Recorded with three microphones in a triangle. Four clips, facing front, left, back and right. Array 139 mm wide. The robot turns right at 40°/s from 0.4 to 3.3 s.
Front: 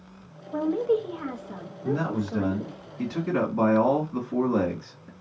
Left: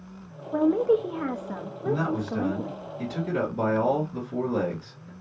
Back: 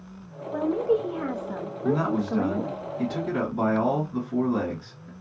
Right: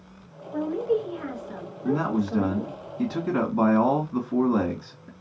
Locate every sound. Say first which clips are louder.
0.5 s a woman speaking: left 4 dB, even; 85° left, 0.6 m; by 2.8 s 175° left, 0.6 m
1.8 s a man speaking: right 2 dB, back 3 dB; 140° right, 1.7 m; by 5.1 s 80° right, 1.7 m